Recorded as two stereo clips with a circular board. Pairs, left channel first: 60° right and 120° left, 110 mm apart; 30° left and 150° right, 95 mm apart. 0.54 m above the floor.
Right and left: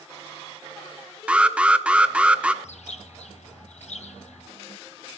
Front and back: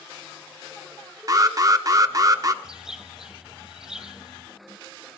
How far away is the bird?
About 0.9 m.